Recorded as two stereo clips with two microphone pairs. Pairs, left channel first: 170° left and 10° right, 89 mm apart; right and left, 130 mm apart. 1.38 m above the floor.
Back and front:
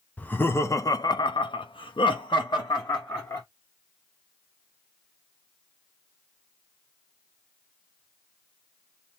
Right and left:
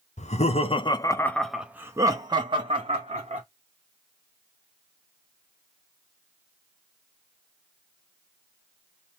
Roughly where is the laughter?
Behind right.